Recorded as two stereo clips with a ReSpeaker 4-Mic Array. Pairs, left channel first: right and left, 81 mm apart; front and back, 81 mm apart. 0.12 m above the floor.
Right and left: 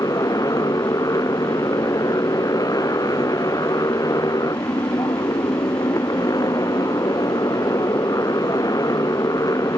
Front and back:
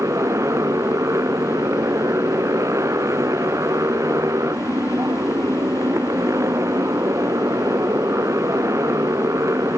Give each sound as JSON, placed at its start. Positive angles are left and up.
{"t": 0.0, "sound": "a motorcycle", "azimuth_deg": -130}